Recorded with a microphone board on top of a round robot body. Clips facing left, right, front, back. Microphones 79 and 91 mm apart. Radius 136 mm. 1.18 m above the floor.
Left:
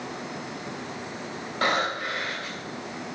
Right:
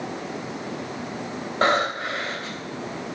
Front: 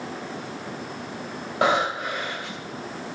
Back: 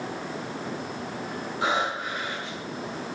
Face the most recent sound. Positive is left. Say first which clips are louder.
# right 4 dB, front 5 dB
turn(degrees=-30)